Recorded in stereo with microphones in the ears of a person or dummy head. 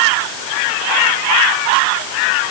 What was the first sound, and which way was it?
Only background noise.